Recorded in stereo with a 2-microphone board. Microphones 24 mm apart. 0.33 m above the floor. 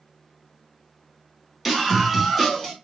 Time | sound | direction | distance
1.6 | a scream | 10° right (ahead or behind) | 1.3 m